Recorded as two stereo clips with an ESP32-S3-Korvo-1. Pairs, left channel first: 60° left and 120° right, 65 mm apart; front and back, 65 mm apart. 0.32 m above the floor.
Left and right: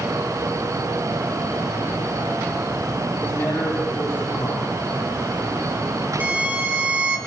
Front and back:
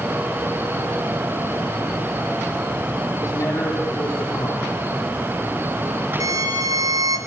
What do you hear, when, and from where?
3.2 s a man speaking: straight ahead, 9 m
6.2 s a violin: straight behind, 4.5 m